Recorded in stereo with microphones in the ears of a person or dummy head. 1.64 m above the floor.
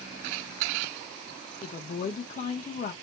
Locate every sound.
1.6 s a woman speaking: 40° left (ahead or behind), 0.7 m